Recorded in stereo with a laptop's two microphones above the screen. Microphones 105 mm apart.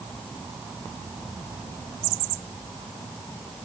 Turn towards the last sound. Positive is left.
No sound to turn to.